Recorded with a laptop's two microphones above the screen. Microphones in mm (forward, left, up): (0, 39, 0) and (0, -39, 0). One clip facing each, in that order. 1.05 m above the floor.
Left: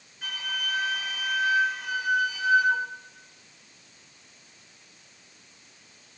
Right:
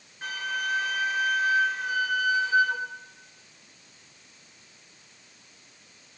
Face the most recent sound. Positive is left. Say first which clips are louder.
# right 4 dB
turn(degrees=-45)  # may be behind; listen again after turning